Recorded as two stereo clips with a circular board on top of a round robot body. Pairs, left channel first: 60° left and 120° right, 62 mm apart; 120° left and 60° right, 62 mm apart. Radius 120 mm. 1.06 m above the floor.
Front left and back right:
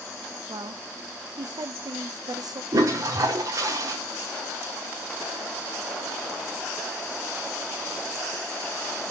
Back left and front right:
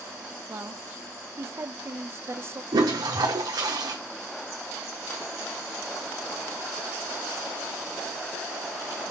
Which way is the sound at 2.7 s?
80° right.